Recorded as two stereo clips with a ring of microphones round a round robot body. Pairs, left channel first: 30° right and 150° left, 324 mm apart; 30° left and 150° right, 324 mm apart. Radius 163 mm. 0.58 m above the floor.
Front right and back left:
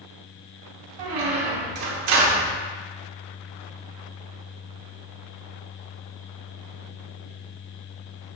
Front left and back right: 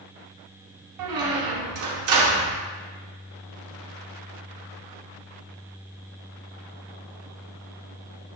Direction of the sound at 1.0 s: 175° left.